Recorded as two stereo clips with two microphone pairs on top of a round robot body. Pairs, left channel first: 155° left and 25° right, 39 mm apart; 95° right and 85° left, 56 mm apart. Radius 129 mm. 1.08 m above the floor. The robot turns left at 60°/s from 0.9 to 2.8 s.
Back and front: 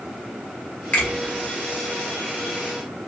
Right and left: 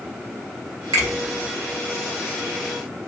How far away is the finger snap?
About 1.2 m.